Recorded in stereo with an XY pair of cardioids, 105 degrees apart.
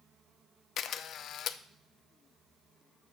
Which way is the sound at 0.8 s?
65° left.